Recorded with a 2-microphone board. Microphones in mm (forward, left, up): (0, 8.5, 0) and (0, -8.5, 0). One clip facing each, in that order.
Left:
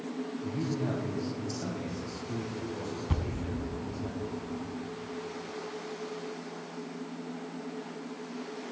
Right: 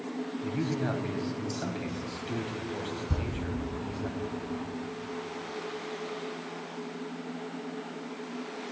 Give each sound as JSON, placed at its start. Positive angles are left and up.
{"t": 0.4, "sound": "a man speaking", "side_deg": -55, "distance_m": 1.6}
{"t": 3.1, "sound": "a thud", "side_deg": 70, "distance_m": 1.4}